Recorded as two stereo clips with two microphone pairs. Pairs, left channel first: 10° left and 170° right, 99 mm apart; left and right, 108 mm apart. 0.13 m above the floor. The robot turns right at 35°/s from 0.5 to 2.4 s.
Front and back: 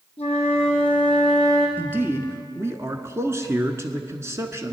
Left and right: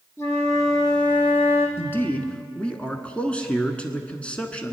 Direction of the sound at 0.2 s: 25° left.